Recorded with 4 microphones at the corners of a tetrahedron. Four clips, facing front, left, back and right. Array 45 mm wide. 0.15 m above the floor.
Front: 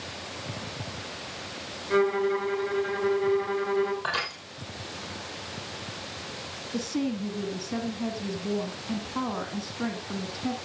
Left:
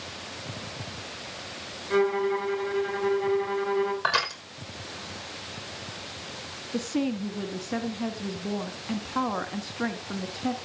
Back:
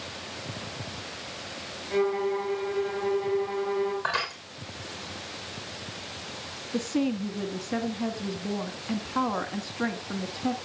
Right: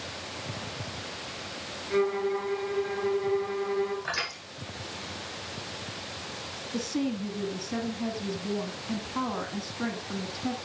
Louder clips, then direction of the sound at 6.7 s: Left 2 dB, back 2 dB; 135° left.